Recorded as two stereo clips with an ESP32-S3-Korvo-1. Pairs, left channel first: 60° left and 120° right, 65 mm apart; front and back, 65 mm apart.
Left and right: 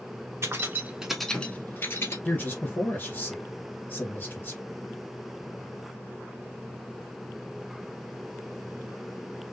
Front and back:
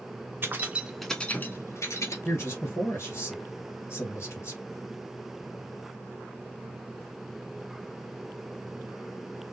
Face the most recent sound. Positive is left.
turn(degrees=15)